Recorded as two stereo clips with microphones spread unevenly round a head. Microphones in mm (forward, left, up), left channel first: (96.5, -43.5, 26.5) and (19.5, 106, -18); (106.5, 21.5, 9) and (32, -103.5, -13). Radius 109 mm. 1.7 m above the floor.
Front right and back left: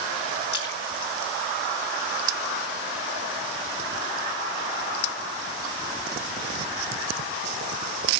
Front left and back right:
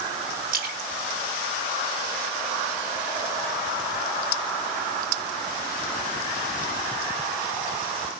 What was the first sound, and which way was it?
A splash, 100° right.